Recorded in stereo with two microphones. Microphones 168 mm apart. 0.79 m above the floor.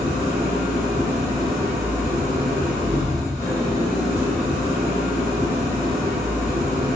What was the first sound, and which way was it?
An engine running, 40° right (ahead or behind).